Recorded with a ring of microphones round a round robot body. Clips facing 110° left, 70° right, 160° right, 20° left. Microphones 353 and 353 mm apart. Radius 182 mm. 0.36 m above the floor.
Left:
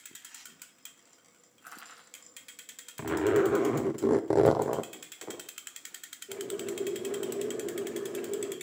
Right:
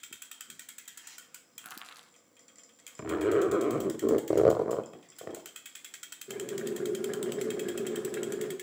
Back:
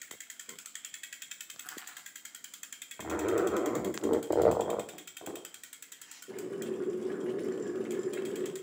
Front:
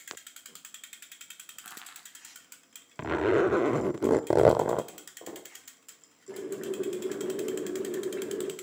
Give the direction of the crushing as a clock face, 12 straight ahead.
1 o'clock.